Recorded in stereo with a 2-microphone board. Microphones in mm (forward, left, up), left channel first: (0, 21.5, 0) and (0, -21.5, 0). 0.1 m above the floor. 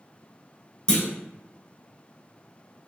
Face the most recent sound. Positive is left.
turn(degrees=25)  # may be behind; listen again after turning